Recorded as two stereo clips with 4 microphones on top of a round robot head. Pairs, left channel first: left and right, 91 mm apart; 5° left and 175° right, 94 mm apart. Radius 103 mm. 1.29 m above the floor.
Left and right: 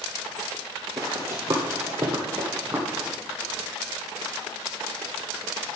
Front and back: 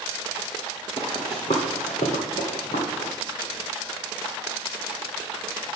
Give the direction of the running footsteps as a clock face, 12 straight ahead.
2 o'clock.